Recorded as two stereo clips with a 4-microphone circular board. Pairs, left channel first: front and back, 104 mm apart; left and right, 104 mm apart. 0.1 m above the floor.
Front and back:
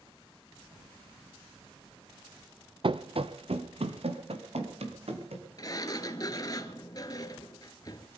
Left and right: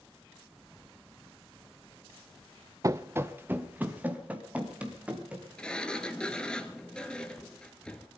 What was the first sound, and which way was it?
Running footsteps, 145° right.